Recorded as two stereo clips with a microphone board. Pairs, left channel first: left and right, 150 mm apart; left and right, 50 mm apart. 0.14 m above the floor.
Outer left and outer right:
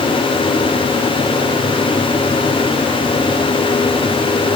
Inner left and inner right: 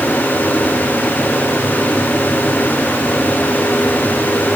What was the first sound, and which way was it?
Only background noise.